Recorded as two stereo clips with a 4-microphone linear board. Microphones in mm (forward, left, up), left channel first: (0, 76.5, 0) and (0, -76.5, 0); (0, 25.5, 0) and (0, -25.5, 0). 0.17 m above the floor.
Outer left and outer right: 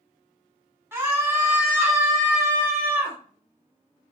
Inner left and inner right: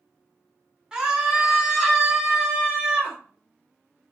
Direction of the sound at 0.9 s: 15° right (ahead or behind).